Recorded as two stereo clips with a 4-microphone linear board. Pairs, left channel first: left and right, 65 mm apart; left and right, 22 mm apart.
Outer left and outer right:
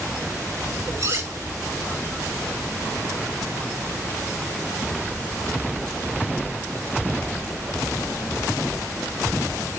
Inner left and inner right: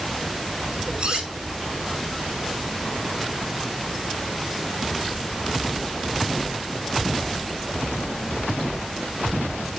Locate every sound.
1.0 s cutlery clinking: 50° right (ahead or behind), 5 m